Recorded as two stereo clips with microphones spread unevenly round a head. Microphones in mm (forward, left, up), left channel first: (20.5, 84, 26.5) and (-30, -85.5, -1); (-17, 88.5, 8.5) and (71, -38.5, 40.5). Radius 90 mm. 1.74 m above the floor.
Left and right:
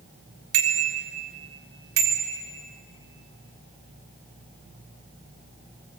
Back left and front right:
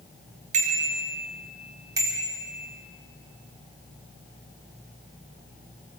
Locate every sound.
0.5 s a bicycle bell: 100° right, 2.5 m; by 2.4 s 130° right, 3.5 m